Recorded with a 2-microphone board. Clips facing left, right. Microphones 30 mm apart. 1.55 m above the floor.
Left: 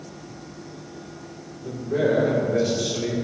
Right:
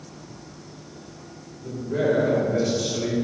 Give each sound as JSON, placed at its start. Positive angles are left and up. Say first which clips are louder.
{"t": 1.6, "sound": "a man speaking", "louder": "left 1 dB", "side_deg": 10, "distance_m": 3.0}